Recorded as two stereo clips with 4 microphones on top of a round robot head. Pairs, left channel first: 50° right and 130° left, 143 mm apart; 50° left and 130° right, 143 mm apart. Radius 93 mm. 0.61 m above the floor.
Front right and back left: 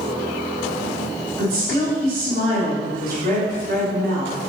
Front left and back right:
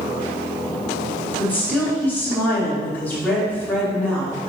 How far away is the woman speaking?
About 2.5 m.